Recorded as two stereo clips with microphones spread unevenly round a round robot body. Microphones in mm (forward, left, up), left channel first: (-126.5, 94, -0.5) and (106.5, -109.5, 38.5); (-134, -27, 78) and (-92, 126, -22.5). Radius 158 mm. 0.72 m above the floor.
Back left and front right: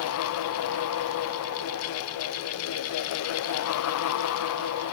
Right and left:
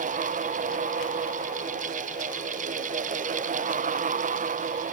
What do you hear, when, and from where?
Only background noise.